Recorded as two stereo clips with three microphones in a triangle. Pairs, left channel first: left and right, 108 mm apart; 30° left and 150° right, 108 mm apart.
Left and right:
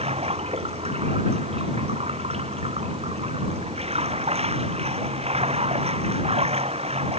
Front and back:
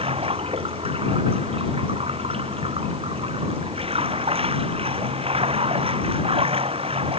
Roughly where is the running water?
Behind right.